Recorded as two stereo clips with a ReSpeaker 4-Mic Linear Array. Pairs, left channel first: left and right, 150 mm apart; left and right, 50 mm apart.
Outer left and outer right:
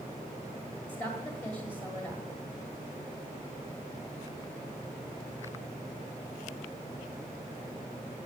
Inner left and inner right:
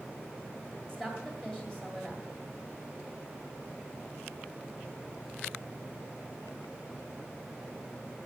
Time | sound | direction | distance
0.9 | a woman speaking | 15° left (ahead or behind) | 1.7 m